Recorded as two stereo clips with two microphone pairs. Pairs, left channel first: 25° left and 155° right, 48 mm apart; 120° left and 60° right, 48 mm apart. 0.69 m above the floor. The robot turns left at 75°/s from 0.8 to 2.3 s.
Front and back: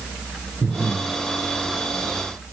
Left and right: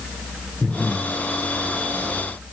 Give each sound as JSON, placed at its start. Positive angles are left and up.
{"t": 0.6, "sound": "breathing", "azimuth_deg": -175, "distance_m": 0.9}